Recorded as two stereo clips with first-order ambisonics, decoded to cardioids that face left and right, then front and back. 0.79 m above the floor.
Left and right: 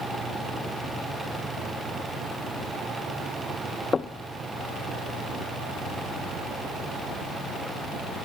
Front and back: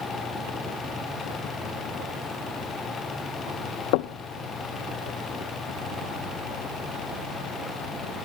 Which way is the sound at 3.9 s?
15° left.